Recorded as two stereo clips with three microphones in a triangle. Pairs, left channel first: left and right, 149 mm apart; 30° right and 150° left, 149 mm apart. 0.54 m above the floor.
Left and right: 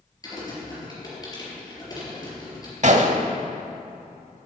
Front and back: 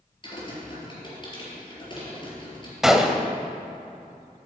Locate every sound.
0.2 s typing on a keyboard: 25° left, 4 m
2.8 s a gunshot: 125° right, 0.7 m